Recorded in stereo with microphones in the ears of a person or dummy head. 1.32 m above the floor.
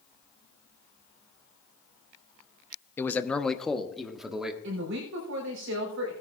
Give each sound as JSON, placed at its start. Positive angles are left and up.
{"t": 3.0, "sound": "a man speaking", "side_deg": 15, "distance_m": 0.8}
{"t": 4.6, "sound": "a woman speaking", "side_deg": -80, "distance_m": 4.0}